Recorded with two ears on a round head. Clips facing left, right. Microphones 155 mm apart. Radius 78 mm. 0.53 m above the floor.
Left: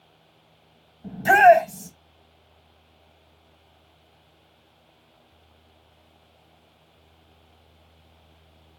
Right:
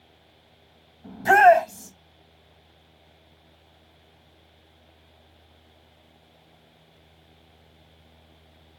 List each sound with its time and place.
1.0 s a shout: 35° left (ahead or behind), 2.5 m